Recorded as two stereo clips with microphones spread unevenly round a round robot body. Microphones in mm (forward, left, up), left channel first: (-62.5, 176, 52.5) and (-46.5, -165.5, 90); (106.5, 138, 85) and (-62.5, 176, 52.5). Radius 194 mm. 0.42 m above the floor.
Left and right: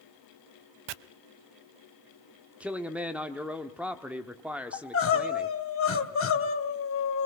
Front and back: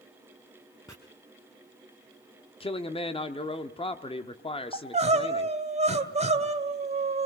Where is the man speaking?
10° left, 1.0 m.